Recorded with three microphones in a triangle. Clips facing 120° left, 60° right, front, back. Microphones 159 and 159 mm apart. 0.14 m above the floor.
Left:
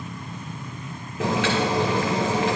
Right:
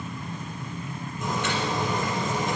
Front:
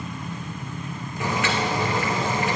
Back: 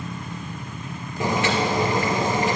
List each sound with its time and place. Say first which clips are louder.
1.2 s boiling: left 6 dB, back 3 dB; 115° left, 3.5 m